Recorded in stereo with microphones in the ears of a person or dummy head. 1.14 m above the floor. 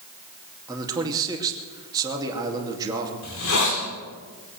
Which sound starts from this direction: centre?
A man speaking, at 0.7 s.